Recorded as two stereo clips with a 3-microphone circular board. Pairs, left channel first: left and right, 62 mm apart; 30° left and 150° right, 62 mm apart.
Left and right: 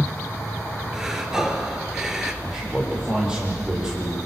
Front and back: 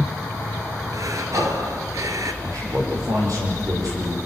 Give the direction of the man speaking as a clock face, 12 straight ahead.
6 o'clock.